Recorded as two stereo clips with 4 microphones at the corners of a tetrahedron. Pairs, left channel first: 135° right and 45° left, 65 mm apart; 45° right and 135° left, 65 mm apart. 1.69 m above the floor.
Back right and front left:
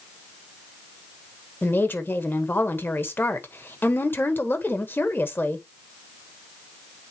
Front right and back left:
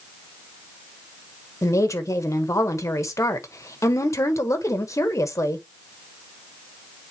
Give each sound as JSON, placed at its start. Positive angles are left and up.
{"t": 1.6, "sound": "a woman speaking", "azimuth_deg": -80, "distance_m": 1.3}